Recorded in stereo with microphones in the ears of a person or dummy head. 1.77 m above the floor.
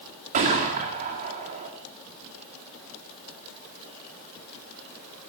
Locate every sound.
0.3 s a gunshot: 35° right (ahead or behind), 1.8 m